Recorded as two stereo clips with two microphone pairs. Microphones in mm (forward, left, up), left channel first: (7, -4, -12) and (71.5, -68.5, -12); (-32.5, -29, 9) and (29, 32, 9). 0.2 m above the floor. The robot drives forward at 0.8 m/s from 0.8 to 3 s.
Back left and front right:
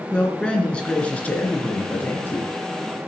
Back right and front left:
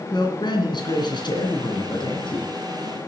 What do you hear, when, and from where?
0.1 s a man speaking: 150° right, 2.5 m; by 2.5 s 160° right, 3.5 m